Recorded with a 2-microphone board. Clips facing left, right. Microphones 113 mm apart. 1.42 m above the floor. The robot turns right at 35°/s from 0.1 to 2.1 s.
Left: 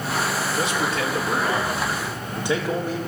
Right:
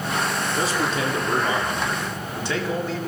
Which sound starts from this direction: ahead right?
A man speaking, at 0.6 s.